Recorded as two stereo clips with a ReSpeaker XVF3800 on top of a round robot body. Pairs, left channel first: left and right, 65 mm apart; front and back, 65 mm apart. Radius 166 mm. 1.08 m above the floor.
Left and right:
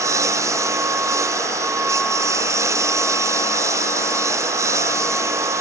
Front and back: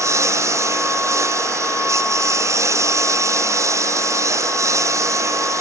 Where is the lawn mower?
135° right; by 5.6 s 140° right.